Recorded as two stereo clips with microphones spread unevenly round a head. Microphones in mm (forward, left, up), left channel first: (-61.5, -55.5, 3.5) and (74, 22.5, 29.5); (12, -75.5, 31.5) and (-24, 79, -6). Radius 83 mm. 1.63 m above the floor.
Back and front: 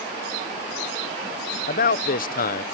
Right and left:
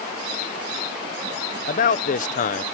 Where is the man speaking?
115° right.